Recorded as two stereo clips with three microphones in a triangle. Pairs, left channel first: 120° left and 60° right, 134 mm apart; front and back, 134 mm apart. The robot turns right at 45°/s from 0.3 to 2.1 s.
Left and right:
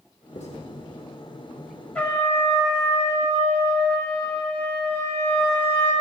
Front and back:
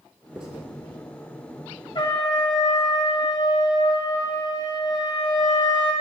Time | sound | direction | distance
0.3 | writing | 95° left | 1.4 m
1.9 | a trumpet | 45° left | 1.3 m